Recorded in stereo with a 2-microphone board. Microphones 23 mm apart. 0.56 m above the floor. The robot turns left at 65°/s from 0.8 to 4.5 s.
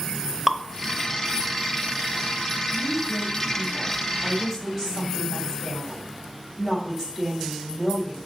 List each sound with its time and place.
0.5 s dripping: 15° right (ahead or behind), 0.6 m
2.7 s a woman speaking: 40° right, 3.5 m; by 8.2 s 160° right, 3.5 m